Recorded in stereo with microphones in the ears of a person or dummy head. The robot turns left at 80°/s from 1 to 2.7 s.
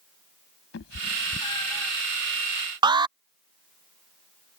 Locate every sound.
0.7 s a cat meowing: 65° left (ahead or behind); by 1.9 s 5° right (ahead or behind)
2.8 s an alarm: 20° right (ahead or behind)